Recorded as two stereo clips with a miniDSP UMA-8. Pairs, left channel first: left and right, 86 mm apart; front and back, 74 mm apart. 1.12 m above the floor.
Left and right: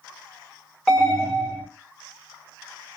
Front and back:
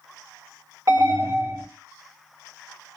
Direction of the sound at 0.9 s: 175° left.